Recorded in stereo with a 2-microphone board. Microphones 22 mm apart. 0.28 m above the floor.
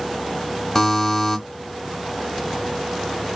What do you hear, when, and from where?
0.8 s a buzzer: 25° left (ahead or behind), 1.2 m